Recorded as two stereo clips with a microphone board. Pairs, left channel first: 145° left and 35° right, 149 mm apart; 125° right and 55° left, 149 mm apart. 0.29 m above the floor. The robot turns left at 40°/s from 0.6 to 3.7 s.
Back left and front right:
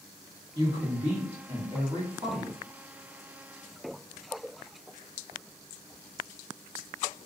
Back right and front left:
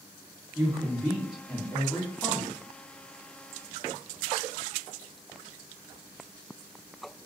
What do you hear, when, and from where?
0.6 s a woman speaking: straight ahead, 1.7 m; by 2.5 s 80° right, 1.7 m